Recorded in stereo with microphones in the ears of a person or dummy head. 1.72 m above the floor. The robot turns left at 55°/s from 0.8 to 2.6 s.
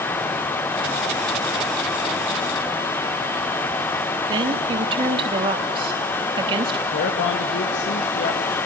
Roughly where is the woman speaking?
Right.